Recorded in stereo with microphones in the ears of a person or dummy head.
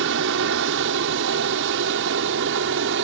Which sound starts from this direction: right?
An aircraft, at 0.0 s.